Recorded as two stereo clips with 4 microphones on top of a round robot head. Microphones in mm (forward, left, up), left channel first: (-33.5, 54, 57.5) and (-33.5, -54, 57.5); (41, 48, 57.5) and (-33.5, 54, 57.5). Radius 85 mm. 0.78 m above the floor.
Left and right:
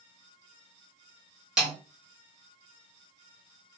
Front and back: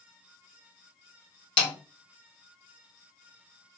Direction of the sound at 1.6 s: 5° right.